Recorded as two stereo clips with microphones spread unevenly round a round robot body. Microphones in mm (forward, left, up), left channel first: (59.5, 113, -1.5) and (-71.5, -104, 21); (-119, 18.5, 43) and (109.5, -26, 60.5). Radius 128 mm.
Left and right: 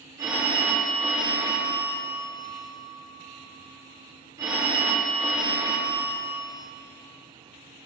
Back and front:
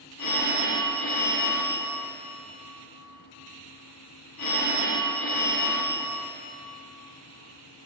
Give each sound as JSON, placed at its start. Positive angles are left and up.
{"t": 0.2, "sound": "a phone ringing", "azimuth_deg": 160, "distance_m": 5.0}